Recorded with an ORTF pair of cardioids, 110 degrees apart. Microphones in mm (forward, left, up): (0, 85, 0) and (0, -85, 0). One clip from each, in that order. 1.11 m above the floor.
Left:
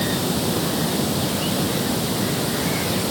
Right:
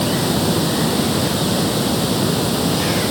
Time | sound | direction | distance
0.0 | running water | 30° right | ?